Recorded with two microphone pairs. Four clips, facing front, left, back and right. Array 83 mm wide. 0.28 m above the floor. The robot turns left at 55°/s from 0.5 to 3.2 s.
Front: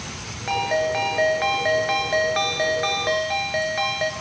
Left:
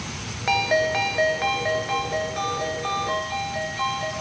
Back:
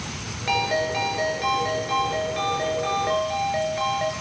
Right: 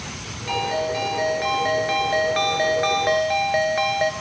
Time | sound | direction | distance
0.5 | a ringtone | 75° left | 1.9 m